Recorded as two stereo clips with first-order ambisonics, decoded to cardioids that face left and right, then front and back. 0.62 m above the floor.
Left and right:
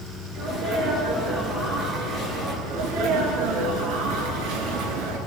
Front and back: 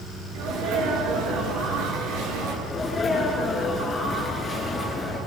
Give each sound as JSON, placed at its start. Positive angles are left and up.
{"t": 0.3, "sound": "a sneeze", "azimuth_deg": -155, "distance_m": 10.0}
{"t": 2.7, "sound": "a sneeze", "azimuth_deg": -85, "distance_m": 8.0}